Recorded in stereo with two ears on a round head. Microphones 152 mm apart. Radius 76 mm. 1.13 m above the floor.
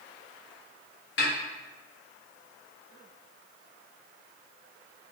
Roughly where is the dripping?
I don't hear dripping.